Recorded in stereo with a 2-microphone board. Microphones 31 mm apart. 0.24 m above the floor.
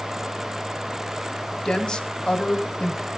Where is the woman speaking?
30° left (ahead or behind), 2.0 m.